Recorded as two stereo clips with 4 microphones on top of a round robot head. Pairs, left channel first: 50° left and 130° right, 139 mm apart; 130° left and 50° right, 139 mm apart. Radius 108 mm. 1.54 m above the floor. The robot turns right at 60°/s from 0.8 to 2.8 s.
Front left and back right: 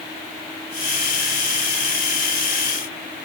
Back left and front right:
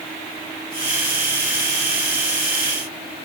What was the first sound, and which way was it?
Only background noise.